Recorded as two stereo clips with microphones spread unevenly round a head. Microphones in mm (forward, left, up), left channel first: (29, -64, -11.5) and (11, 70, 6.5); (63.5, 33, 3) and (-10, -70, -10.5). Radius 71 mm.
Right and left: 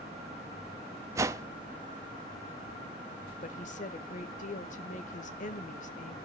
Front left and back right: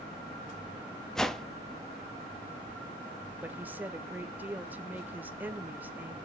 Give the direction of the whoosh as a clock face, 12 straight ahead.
8 o'clock.